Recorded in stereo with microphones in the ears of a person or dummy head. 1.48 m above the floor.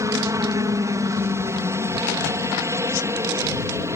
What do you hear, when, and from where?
0.0 s a helicopter: 15° right (ahead or behind)